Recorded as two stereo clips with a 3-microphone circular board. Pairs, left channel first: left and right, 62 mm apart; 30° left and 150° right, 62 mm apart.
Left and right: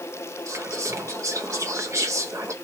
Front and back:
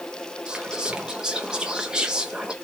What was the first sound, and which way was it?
Whispering, 75° right.